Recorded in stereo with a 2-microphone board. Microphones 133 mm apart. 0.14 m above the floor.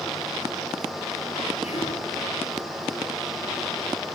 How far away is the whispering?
About 3 m.